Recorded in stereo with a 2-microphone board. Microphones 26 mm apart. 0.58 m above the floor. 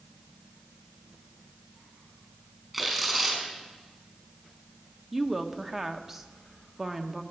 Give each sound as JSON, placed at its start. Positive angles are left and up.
{"t": 2.7, "sound": "tearing paper", "side_deg": -10, "distance_m": 5.5}
{"t": 5.1, "sound": "a woman speaking", "side_deg": -15, "distance_m": 1.0}